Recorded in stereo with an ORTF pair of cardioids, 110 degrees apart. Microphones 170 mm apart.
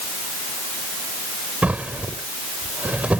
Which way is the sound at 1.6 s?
10° right.